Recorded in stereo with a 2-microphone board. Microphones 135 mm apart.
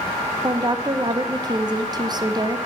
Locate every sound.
0.4 s a woman speaking: 30° right (ahead or behind), 0.9 m